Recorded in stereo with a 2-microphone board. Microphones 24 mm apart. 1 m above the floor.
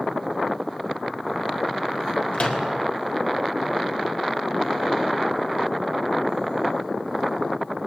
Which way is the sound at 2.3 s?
55° left (ahead or behind).